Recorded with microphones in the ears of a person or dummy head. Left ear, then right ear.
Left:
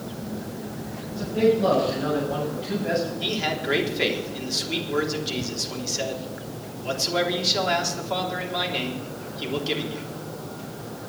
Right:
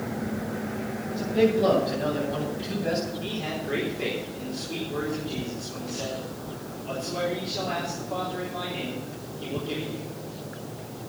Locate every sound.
1.1 s a man speaking: 15° right (ahead or behind), 5.5 m
3.2 s a man speaking: 55° left (ahead or behind), 3.5 m